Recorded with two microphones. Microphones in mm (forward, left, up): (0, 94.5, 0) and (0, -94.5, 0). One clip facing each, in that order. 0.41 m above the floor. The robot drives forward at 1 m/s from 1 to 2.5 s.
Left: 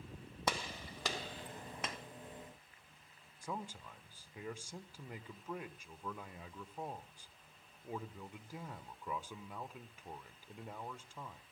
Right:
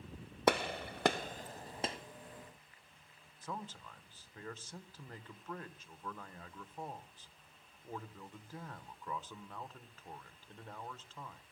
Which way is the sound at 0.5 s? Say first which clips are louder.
Right 9 dB; 60° right (ahead or behind).